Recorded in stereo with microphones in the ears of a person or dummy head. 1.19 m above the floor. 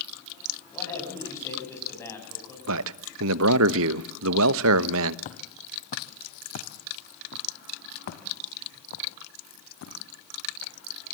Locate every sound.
0.7 s a man speaking: 15° left (ahead or behind), 7.5 m
2.7 s a man speaking: 70° right (ahead or behind), 0.9 m
5.2 s footsteps: 45° left (ahead or behind), 1.8 m; by 11.1 s 70° left (ahead or behind), 4.5 m